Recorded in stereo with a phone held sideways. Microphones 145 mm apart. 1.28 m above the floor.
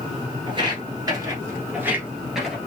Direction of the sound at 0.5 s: 35° right (ahead or behind).